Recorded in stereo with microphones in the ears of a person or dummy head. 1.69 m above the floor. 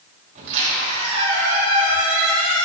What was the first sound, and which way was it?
A squeak, 45° right (ahead or behind).